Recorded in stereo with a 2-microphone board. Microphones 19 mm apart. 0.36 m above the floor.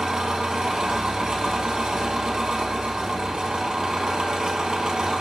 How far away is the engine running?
About 0.7 m.